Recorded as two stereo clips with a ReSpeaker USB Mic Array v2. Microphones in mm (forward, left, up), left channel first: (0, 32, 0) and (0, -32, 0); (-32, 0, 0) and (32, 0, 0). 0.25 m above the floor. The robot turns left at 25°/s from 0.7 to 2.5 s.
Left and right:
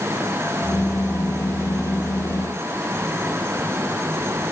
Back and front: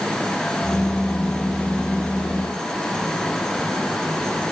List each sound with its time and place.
Only background noise.